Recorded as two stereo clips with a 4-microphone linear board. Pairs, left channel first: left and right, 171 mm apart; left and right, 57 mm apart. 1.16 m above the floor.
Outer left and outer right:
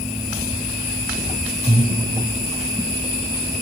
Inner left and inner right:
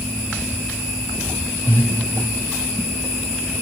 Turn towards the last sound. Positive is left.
turn(degrees=35)  # may be behind; listen again after turning